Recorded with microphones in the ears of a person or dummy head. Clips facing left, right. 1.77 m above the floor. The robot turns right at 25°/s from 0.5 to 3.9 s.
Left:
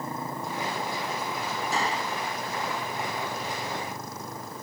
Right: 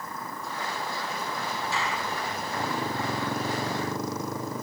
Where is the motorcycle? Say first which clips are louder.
Left 4 dB; 145° left; by 4.6 s 130° right.